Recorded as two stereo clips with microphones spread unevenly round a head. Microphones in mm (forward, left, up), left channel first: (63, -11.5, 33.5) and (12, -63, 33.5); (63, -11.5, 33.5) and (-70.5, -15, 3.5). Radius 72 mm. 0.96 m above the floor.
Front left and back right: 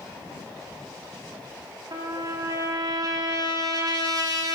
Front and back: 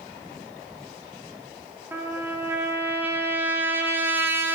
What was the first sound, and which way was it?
A trumpet, 100° right.